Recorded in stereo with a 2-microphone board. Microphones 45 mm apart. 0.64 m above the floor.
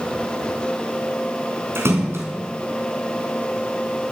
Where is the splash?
70° right (ahead or behind), 3 m.